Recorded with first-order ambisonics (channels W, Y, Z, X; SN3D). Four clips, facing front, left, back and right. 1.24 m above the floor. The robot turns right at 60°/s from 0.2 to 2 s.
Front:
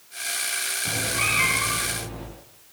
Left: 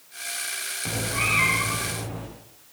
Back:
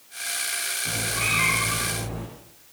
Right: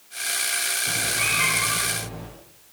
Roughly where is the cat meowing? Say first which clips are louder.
Left 1 dB, front 1 dB; left.